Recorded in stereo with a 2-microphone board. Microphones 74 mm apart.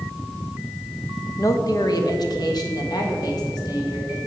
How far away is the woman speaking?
About 0.9 m.